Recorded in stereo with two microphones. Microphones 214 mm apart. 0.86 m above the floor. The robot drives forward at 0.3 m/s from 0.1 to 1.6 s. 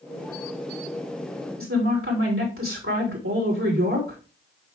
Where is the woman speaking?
80° right, 2.5 m.